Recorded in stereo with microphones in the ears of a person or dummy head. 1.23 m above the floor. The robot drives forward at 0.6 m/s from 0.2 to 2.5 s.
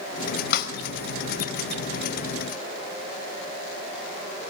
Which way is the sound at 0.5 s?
60° left (ahead or behind).